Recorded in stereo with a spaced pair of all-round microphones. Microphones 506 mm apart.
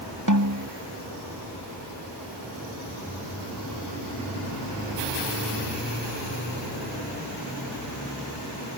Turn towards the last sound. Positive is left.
turn(degrees=-35)  # may be behind; listen again after turning